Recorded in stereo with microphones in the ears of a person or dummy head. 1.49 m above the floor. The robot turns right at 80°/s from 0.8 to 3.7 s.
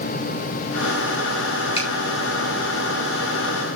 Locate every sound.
1.8 s a finger snap: 30° left (ahead or behind), 5.5 m; by 1.9 s 20° left (ahead or behind), 5.5 m